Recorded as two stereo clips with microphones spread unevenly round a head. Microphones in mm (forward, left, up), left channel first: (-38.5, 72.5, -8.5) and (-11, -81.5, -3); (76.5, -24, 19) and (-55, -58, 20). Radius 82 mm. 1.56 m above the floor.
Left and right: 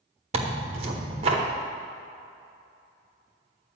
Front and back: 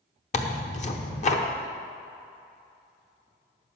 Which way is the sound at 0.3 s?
20° right.